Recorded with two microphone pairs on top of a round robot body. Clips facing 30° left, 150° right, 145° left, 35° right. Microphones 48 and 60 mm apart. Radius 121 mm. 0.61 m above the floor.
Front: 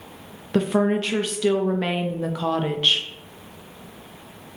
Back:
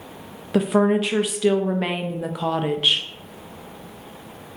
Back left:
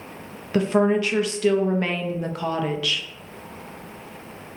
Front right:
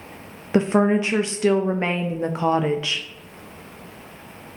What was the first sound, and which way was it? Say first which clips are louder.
A woman speaking: back 2 dB, front right 1 dB; 60° right.